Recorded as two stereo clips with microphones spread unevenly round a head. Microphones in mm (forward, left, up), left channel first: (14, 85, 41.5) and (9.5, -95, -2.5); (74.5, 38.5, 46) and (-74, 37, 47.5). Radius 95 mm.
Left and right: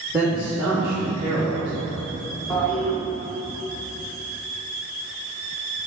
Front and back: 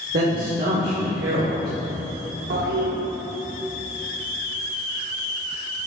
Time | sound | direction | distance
0.1 | a man speaking | 170° right | 1.8 m
2.5 | a toilet flushing | straight behind | 1.0 m